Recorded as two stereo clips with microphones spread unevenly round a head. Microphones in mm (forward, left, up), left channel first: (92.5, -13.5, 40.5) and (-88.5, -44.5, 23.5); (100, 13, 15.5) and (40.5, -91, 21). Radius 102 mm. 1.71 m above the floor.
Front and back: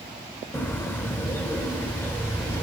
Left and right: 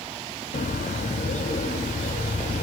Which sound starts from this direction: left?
A bird, at 0.5 s.